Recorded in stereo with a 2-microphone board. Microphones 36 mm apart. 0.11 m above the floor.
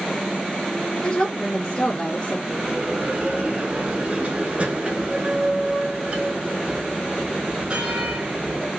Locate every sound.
1.0 s a woman speaking: 20° left (ahead or behind), 1.1 m
2.5 s a bell: 35° right (ahead or behind), 1.0 m